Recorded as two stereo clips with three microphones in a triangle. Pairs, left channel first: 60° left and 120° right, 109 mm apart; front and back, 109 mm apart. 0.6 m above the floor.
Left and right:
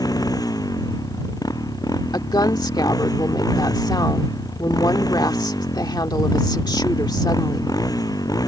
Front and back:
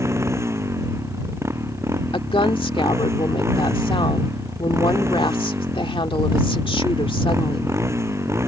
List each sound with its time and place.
0.0 s a motorcycle: 115° left
2.1 s a woman speaking: 20° left